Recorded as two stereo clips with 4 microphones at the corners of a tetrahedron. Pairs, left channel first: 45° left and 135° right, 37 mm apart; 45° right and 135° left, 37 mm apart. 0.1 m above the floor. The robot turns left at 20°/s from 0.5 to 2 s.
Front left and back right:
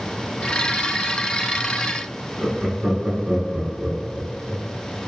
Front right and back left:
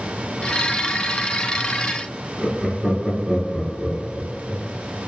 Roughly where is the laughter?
Behind.